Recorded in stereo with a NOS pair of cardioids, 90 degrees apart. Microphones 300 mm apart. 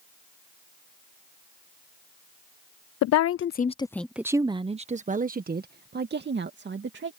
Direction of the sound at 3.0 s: 70° left.